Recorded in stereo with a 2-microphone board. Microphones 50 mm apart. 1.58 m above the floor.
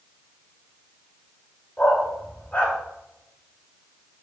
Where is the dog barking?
20° left (ahead or behind), 2.5 m.